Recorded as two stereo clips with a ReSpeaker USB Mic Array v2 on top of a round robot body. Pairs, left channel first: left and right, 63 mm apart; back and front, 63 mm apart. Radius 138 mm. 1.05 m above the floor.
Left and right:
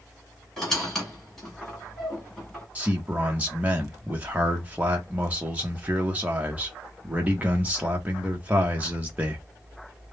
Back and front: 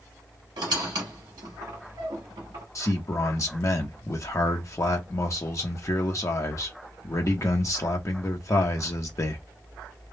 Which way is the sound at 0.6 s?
5° left.